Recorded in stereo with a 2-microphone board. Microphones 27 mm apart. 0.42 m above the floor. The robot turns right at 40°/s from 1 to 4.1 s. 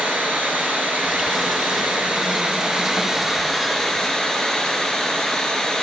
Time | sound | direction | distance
0.0 | running water | 100° right | 1.6 m